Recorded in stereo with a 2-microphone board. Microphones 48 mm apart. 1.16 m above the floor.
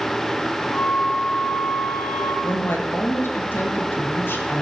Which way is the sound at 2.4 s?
55° left (ahead or behind).